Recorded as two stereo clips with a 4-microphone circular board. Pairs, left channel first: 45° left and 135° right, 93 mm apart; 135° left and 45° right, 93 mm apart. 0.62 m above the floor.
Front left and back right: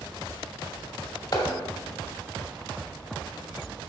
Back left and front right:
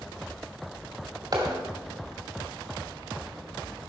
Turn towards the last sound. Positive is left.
turn(degrees=-5)